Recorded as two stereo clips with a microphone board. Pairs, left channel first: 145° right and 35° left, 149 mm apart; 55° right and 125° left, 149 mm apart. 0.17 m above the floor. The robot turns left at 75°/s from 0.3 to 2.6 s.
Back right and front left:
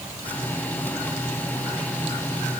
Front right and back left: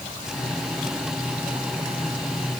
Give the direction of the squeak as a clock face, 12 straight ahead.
No squeak in this recording.